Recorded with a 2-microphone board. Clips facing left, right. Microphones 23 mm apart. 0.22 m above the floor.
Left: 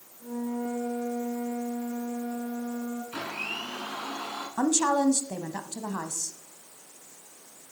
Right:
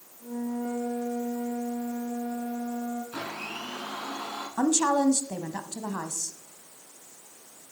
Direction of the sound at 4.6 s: 15° right (ahead or behind).